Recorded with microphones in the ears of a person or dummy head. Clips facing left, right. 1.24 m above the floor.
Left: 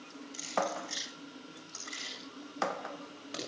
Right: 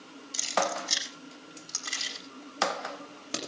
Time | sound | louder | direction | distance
0.3 | keys jangling | right 4 dB | 80° right | 6 m